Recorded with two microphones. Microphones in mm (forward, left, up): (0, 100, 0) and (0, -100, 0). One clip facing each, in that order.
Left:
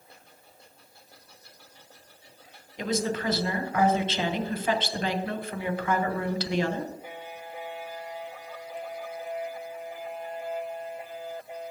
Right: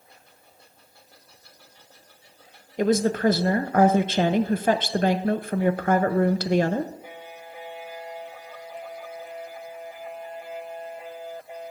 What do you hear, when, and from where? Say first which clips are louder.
2.8 s a woman speaking: right 8 dB; 50° right (ahead or behind), 0.7 m